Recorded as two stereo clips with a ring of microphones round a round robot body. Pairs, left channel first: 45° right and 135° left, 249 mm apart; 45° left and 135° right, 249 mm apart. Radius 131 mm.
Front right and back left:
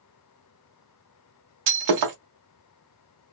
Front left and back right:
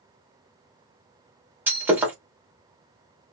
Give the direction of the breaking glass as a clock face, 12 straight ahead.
7 o'clock.